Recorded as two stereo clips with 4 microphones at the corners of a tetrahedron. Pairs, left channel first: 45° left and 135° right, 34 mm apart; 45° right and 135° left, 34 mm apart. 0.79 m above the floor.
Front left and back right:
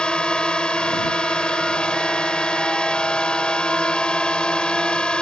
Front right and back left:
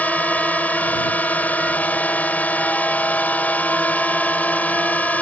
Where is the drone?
15° right.